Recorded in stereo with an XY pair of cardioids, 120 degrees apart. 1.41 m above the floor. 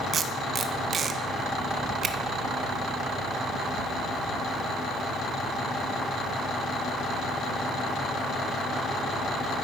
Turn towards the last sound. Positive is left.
turn(degrees=-40)